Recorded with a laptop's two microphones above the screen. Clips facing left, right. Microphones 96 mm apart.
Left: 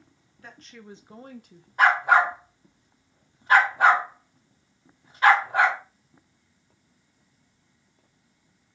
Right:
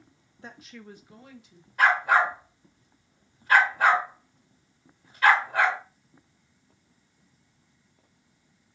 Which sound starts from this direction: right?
A woman speaking, at 0.4 s.